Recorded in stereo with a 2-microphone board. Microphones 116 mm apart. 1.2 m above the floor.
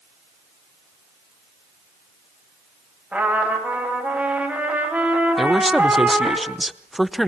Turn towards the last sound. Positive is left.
turn(degrees=0)  # may be behind; listen again after turning